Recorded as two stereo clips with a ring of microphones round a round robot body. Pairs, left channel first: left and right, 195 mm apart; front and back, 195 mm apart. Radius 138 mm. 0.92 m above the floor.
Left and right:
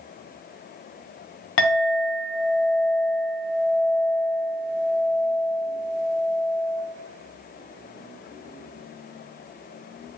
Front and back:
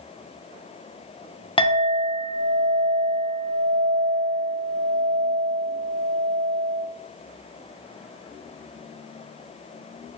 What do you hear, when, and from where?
1.6 s a clink: 65° left, 0.6 m